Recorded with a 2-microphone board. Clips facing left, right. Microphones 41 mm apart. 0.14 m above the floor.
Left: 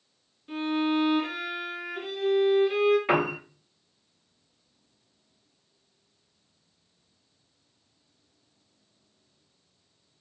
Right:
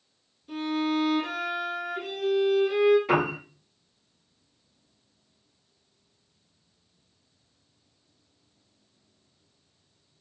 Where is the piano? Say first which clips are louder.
Even; 40° left (ahead or behind), 1.3 m.